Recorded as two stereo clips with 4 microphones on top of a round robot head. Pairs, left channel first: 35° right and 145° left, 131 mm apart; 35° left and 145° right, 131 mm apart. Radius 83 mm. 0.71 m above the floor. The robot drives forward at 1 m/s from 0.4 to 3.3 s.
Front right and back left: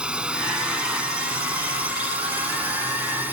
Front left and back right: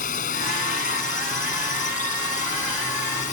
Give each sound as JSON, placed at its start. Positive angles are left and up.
{"t": 0.0, "sound": "a drone", "azimuth_deg": 60}